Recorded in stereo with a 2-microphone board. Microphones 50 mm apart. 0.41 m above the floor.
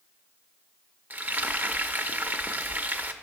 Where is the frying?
35° right (ahead or behind), 0.5 m.